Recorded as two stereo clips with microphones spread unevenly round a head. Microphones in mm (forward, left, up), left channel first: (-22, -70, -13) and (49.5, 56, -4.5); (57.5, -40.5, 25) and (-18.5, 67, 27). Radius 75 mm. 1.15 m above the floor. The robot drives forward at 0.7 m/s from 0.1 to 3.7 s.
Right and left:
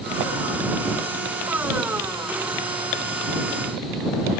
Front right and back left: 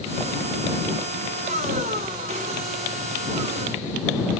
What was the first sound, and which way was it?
Only background noise.